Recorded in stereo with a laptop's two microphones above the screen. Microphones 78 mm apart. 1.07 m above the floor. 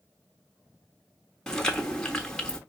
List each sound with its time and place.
1.5 s chewing: 10° left (ahead or behind), 1.3 m